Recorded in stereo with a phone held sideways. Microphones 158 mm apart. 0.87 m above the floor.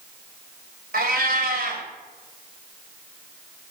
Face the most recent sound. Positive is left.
turn(degrees=-80)